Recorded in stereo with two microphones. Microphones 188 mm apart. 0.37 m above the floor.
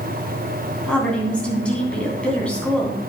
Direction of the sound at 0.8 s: 5° left (ahead or behind).